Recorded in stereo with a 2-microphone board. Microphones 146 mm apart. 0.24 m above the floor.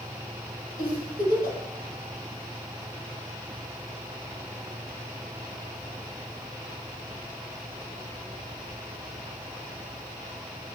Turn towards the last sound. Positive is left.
turn(degrees=-80)